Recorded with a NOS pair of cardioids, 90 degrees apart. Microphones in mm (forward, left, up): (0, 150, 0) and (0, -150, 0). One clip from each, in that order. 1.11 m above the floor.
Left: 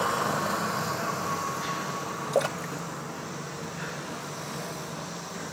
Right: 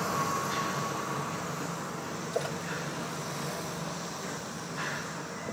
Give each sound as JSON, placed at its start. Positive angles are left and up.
{"t": 2.3, "sound": "a splash", "azimuth_deg": 55, "distance_m": 1.5}